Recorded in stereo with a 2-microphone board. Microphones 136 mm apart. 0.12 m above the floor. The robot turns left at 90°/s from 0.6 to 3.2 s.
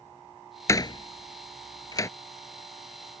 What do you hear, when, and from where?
0.7 s a door slam: 25° left (ahead or behind); by 2.1 s 20° left (ahead or behind)